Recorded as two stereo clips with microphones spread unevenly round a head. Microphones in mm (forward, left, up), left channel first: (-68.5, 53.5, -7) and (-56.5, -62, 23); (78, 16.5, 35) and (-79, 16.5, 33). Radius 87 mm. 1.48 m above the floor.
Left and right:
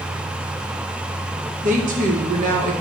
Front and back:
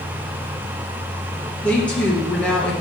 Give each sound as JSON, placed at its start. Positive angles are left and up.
{"t": 1.6, "sound": "a woman speaking", "azimuth_deg": -85, "distance_m": 1.7}